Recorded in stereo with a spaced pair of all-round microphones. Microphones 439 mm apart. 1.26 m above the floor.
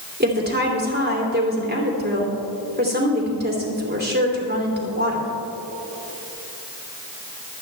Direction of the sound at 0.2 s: 20° right (ahead or behind).